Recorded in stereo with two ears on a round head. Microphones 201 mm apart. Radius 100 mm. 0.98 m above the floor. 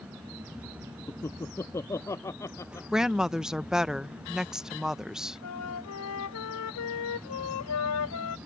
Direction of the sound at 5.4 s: 85° left.